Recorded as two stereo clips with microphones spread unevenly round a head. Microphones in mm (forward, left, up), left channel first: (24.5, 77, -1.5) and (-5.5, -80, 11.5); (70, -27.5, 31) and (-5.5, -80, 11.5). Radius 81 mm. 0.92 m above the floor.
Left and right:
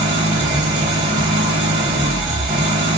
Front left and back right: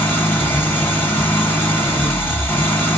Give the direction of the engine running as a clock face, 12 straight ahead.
1 o'clock.